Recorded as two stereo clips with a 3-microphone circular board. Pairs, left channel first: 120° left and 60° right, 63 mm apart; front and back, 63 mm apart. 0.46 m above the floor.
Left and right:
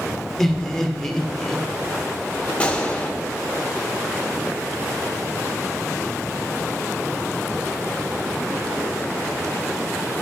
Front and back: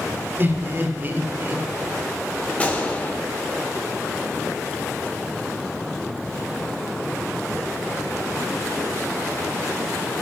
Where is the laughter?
160° right, 1.4 m.